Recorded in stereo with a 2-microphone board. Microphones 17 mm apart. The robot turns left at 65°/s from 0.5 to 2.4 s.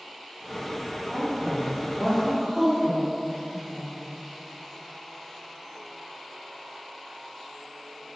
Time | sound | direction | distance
1.1 | a woman speaking | 35° left (ahead or behind) | 1.1 m